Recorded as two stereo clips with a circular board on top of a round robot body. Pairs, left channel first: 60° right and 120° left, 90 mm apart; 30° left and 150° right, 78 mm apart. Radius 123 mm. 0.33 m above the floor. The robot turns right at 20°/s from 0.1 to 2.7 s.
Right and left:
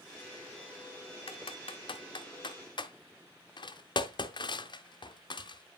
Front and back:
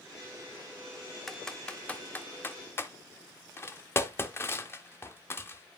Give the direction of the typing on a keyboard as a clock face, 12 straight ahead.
2 o'clock.